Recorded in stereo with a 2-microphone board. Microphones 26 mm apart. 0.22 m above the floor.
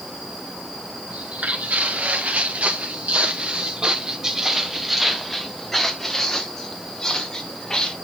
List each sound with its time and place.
1.1 s footsteps: 85° right, 2.5 m; by 7.9 s 25° left (ahead or behind), 3.5 m